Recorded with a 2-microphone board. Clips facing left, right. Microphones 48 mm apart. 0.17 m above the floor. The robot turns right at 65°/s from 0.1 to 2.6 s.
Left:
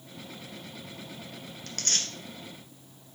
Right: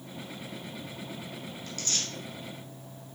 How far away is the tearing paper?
About 1.2 m.